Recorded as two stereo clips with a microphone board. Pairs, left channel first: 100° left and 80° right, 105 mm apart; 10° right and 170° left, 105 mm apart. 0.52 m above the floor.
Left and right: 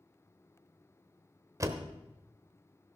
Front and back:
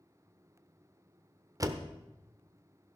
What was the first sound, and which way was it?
A door slam, 135° right.